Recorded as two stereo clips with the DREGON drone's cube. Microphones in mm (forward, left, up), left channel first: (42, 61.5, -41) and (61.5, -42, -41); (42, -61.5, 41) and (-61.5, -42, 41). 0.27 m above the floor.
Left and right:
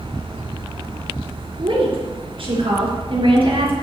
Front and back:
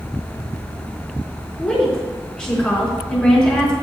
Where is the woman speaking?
90° right, 3.5 m.